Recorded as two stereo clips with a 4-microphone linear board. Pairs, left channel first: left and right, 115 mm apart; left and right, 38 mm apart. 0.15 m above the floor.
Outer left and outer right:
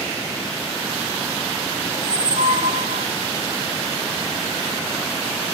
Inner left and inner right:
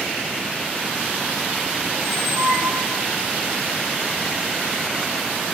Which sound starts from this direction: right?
A squeak, at 1.9 s.